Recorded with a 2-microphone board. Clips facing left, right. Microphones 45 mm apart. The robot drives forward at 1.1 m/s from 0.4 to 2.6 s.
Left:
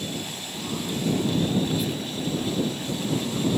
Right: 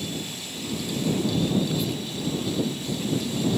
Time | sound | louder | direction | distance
1.6 | whispering | left 1 dB | 5° left (ahead or behind) | ?